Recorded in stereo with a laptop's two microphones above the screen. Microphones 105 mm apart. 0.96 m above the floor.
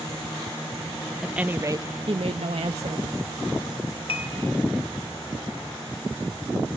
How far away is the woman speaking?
About 0.8 m.